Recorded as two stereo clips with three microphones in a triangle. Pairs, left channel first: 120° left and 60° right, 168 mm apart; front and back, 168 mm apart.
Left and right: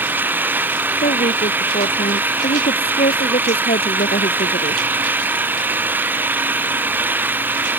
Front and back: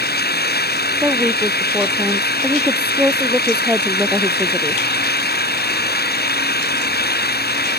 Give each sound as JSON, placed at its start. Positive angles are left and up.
{"t": 0.0, "sound": "an engine running", "azimuth_deg": 20}
{"t": 1.0, "sound": "a woman speaking", "azimuth_deg": 100}